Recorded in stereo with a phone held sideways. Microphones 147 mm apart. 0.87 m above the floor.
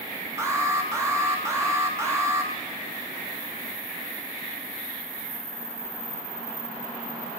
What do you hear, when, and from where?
0.4 s an alarm: 20° right (ahead or behind), 1.7 m